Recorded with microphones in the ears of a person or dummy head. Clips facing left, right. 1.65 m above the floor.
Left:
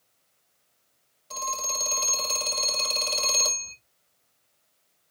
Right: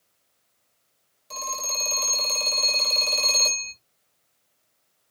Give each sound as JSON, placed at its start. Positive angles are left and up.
{"t": 1.3, "sound": "a phone ringing", "side_deg": -25, "distance_m": 2.5}